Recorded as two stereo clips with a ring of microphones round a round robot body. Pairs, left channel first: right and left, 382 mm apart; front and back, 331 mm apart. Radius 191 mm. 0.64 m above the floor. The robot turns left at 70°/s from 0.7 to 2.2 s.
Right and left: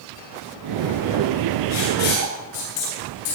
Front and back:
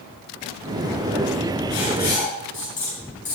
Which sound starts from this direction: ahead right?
Writing, at 1.7 s.